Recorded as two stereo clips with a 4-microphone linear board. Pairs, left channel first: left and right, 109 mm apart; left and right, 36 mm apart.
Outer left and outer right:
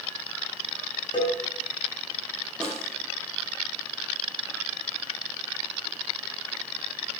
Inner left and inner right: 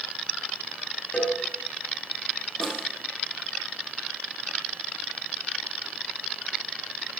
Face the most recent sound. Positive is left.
turn(degrees=10)  # may be behind; listen again after turning